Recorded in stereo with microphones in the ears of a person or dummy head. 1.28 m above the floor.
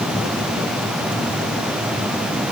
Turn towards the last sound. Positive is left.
No sound to turn to.